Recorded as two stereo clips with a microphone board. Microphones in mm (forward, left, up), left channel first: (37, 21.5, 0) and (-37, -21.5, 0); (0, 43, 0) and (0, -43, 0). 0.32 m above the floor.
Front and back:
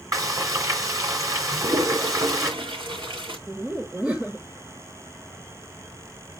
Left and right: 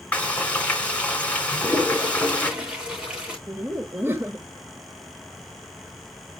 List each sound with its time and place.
0.1 s frying: 165° left, 2.5 m
1.5 s a toilet flushing: 170° right, 7.5 m
3.5 s laughter: 90° right, 0.9 m